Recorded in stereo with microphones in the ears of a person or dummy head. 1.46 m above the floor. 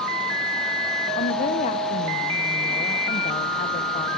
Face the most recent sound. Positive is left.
turn(degrees=40)  # may be behind; listen again after turning